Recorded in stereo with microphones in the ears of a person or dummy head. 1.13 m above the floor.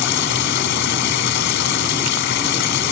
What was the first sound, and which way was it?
Running water, 60° left (ahead or behind).